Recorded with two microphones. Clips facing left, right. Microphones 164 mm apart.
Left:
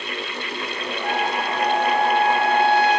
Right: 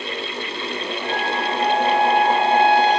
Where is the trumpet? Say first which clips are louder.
Left 1 dB; 25° left (ahead or behind), 7 m.